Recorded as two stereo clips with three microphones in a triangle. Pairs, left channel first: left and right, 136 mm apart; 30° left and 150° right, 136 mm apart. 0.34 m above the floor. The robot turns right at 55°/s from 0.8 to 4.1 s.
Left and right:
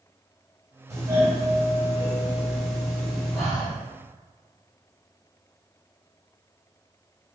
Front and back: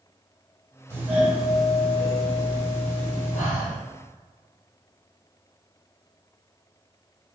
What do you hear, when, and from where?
0.9 s a doorbell: 105° right, 2.0 m; by 3.4 s 35° left, 2.0 m
3.3 s breathing: 5° right, 1.7 m; by 3.8 s 20° left, 1.7 m